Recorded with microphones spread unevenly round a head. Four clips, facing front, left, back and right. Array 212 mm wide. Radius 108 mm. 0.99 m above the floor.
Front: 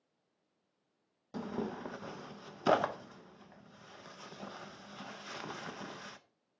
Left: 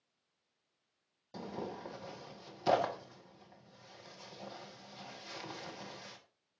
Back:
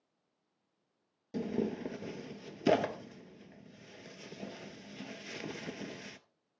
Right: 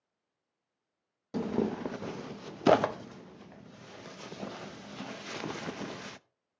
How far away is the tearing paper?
About 0.6 m.